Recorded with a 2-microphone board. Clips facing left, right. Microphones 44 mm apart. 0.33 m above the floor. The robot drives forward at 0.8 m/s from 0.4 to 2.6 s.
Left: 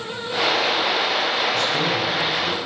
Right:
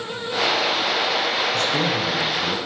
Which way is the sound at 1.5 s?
50° right (ahead or behind).